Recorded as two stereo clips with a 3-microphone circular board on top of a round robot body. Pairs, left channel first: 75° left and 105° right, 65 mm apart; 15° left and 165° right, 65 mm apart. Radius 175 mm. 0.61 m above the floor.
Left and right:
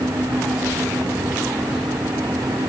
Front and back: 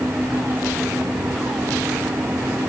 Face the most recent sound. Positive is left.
No sound to turn to.